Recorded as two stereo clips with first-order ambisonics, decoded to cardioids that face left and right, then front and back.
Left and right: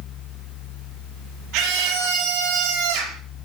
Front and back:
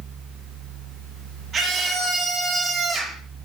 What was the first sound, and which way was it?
A scream, 120° right.